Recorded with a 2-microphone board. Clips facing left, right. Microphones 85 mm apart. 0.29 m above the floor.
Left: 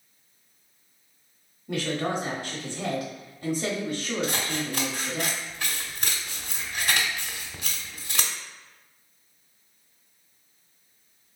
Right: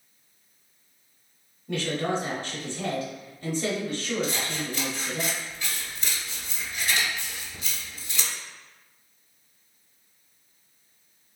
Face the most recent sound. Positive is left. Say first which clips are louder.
# left 1 dB
turn(degrees=65)  # may be behind; listen again after turning